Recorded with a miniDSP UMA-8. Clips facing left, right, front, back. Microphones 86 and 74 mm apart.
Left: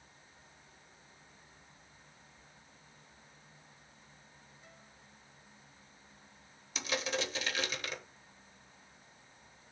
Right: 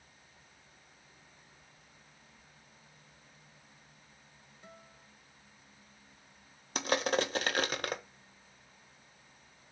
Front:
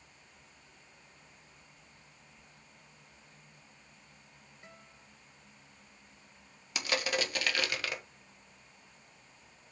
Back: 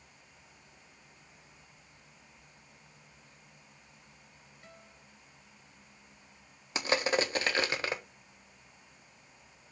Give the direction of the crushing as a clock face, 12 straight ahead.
4 o'clock.